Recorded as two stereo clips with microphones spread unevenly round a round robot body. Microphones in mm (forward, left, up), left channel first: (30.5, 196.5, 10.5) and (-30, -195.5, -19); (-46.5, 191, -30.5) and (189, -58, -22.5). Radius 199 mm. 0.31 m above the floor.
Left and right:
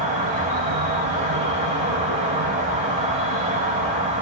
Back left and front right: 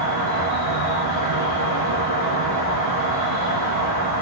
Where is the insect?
35° right, 0.9 m.